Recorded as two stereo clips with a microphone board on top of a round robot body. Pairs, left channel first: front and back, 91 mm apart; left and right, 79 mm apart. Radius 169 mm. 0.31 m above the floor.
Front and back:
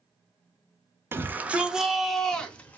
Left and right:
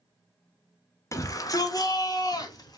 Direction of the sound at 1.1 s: 125° left.